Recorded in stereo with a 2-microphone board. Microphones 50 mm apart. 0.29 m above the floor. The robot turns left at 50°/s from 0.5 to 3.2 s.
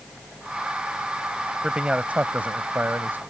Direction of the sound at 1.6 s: 25° right.